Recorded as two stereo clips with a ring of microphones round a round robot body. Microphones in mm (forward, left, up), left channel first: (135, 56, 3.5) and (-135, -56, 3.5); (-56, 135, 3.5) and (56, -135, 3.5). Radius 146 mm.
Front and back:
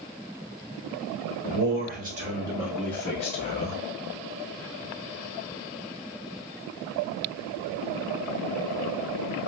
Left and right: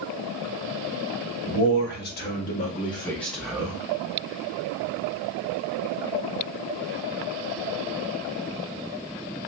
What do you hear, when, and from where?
1.5 s a man speaking: 160° left, 1.3 m; by 3.8 s 10° left, 1.0 m